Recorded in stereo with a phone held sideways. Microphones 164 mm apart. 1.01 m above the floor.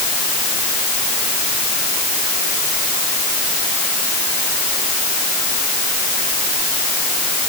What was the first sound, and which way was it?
Only background noise.